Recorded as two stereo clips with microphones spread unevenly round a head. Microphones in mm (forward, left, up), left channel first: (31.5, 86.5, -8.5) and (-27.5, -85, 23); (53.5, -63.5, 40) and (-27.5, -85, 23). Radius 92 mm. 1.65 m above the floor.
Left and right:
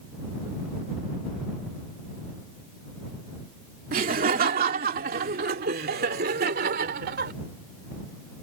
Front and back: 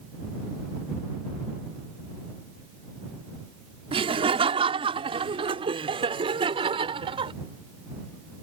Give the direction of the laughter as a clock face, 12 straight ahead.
5 o'clock.